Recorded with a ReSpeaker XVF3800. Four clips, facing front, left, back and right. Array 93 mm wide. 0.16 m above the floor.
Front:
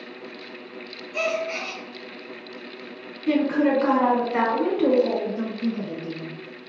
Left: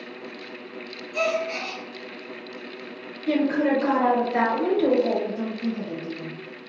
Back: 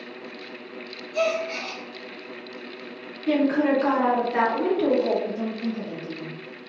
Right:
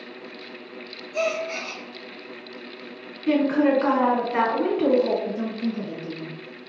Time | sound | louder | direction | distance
1.1 | a gasp | left 1 dB, back 1 dB | 40° left | 1.9 m
3.3 | a woman speaking | right 2 dB, even | 60° right | 1.6 m
5.2 | a woman speaking | right 1 dB, front 1 dB | 15° right | 1.7 m